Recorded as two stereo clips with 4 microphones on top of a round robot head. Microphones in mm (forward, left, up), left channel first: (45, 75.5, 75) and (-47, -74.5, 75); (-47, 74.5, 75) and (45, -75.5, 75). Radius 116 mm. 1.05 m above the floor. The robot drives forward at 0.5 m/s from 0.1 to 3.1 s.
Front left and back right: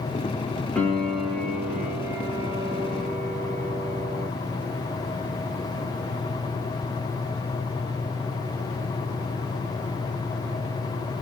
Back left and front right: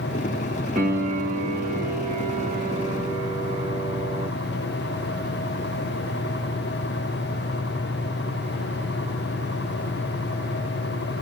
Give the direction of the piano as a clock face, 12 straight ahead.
1 o'clock.